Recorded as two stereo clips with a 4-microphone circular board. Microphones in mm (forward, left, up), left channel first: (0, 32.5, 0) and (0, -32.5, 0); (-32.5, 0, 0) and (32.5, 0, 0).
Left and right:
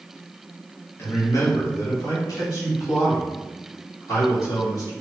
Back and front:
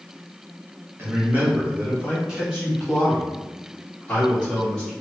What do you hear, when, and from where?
1.0 s a man speaking: 45° left, 1.1 m; by 4.9 s 100° left, 2.5 m